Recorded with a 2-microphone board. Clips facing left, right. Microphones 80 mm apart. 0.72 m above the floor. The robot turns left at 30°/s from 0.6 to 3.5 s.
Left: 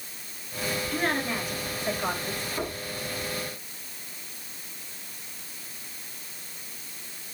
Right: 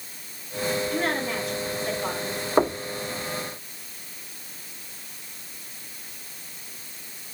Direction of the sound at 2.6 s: 65° right (ahead or behind).